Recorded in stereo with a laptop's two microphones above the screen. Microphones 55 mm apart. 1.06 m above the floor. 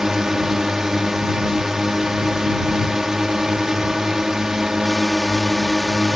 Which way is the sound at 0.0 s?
10° right (ahead or behind).